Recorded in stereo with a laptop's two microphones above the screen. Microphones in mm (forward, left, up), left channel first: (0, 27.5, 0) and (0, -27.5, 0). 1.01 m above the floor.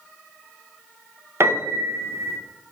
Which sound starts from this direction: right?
A piano, at 1.4 s.